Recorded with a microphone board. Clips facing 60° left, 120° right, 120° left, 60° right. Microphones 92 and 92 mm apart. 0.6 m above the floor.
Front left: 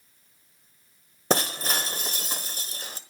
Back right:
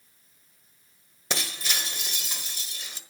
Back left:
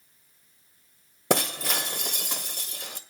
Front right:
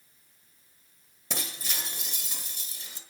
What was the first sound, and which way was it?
Breaking glass, 105° left.